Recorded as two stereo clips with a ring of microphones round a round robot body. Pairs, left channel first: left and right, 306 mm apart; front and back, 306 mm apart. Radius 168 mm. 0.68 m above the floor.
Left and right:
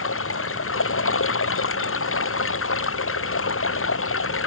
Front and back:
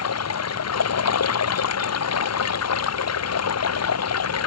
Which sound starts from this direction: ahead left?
Running water, at 0.0 s.